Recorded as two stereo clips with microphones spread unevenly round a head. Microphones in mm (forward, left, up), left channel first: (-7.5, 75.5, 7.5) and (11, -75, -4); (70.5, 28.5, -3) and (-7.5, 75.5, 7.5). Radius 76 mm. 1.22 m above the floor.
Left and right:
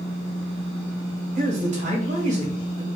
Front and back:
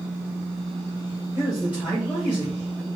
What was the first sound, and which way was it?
A man speaking, 130° right.